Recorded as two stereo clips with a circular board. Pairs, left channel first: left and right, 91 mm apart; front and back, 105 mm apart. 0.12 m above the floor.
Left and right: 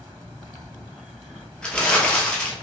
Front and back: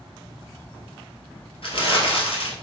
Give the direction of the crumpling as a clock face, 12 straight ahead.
12 o'clock.